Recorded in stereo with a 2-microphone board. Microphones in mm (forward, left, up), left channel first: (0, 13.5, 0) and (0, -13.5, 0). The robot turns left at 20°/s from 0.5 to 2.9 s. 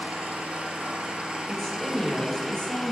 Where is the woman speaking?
5° left (ahead or behind), 3 m; by 2.9 s 30° left (ahead or behind), 3 m.